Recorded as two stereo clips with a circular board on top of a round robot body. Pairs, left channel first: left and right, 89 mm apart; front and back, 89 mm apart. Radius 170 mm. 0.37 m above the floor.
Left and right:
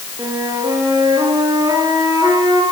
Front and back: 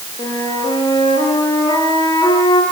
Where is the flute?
40° right, 7.5 m.